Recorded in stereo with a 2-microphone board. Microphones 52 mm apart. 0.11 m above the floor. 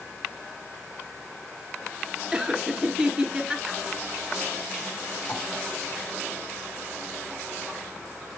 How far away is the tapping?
About 6.5 m.